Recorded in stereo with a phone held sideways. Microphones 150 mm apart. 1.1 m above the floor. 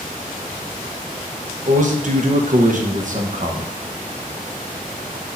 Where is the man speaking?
60° right (ahead or behind), 1.1 m.